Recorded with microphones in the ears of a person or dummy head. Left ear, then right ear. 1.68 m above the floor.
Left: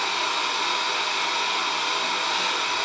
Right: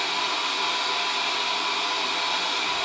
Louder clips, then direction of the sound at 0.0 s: Left 1 dB; 75° left (ahead or behind).